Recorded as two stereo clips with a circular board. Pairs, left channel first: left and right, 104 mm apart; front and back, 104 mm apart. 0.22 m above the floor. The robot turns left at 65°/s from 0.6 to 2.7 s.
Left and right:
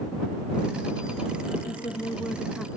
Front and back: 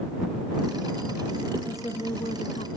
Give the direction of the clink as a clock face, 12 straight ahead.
I don't hear a clink.